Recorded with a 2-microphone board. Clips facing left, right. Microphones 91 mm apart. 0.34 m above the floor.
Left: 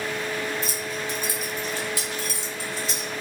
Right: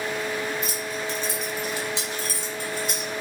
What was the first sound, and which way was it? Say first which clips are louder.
Keys jangling: even; 35° left (ahead or behind).